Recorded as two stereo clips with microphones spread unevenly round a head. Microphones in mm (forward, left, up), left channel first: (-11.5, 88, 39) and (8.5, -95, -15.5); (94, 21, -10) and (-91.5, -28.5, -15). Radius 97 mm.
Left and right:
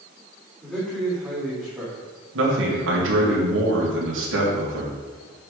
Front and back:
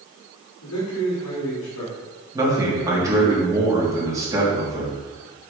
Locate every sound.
0.6 s a man speaking: 5° left, 3.5 m; by 3.3 s 20° right, 1.8 m
2.3 s a man speaking: 90° right, 3.5 m